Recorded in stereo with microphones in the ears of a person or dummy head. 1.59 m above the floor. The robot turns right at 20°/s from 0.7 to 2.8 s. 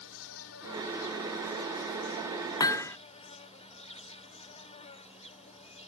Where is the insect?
100° left; by 5.9 s 140° left.